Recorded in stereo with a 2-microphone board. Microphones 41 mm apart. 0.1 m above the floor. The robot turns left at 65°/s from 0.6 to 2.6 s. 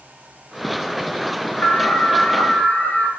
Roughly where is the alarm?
Left.